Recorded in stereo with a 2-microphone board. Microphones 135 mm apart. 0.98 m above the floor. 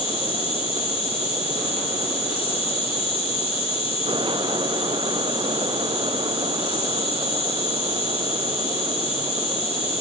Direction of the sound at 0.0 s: 45° left (ahead or behind).